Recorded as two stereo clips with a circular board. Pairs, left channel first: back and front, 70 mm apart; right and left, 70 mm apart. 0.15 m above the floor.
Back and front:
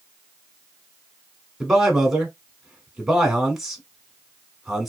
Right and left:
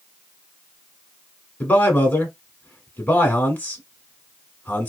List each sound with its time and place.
1.6 s a man speaking: 75° right, 1.1 m